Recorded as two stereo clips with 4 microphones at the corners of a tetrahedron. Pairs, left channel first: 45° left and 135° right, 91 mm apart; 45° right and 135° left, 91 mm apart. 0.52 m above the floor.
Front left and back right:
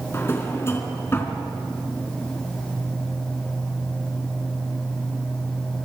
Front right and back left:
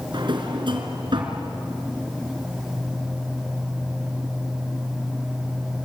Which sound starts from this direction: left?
A drawer, at 0.1 s.